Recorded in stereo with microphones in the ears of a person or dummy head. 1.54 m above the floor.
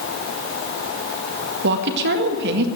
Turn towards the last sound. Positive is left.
turn(degrees=-55)  # may be behind; listen again after turning